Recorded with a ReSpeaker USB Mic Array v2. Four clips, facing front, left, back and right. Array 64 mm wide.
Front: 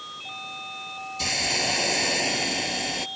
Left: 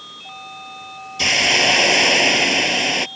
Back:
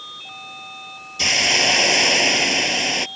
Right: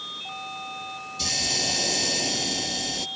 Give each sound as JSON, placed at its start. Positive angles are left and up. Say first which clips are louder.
{"t": 1.2, "sound": "a hiss", "louder": "left 15 dB, back 9 dB", "azimuth_deg": 120}